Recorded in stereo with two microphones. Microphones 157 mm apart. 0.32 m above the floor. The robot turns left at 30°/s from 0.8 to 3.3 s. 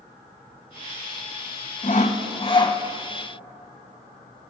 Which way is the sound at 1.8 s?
50° left (ahead or behind).